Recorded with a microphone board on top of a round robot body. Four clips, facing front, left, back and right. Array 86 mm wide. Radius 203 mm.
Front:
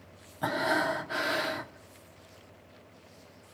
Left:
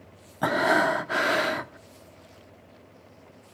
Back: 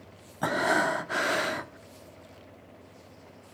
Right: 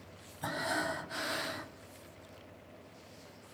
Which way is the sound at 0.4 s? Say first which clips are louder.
Left 13 dB, back 3 dB; 105° left.